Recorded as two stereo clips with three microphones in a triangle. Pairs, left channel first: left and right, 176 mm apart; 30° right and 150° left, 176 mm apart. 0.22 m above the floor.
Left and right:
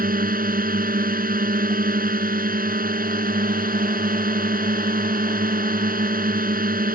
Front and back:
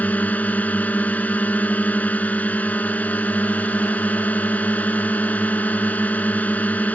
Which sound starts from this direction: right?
A drone, at 0.0 s.